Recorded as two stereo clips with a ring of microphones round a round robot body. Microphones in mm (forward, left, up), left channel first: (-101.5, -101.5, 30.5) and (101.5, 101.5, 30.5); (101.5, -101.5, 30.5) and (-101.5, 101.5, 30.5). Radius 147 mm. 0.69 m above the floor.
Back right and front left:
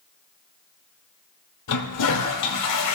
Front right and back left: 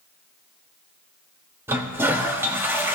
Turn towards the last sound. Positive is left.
turn(degrees=-145)